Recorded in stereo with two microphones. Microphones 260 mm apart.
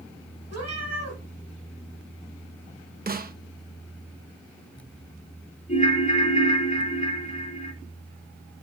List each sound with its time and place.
0.5 s a cat meowing: 85° right, 3.5 m
3.1 s a snare drum: 35° right (ahead or behind), 0.6 m
5.7 s a ringtone: 30° left (ahead or behind), 0.8 m